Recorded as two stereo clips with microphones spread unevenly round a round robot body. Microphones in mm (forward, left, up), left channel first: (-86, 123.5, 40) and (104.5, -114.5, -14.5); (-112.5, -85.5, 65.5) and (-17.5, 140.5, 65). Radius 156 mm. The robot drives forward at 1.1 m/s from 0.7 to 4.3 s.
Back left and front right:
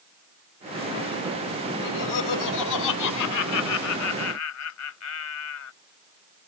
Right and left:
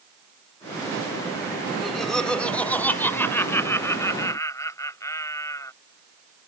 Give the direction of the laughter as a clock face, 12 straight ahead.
7 o'clock.